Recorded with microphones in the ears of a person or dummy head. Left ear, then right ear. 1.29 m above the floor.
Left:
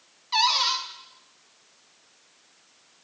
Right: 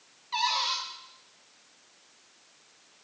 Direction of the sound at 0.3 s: 25° left (ahead or behind).